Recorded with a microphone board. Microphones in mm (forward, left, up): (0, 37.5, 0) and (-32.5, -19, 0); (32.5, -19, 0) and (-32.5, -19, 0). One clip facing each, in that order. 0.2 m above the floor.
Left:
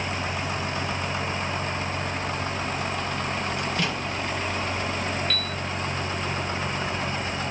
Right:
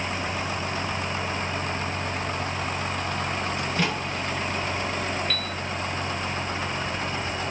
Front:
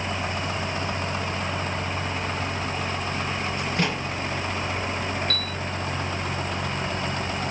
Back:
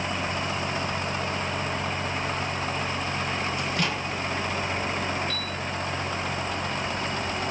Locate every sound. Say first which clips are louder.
3.6 s a microwave: right 1 dB, front 1 dB; 55° right, 2.5 m
5.3 s a piano: even, front 2 dB; 30° right, 0.5 m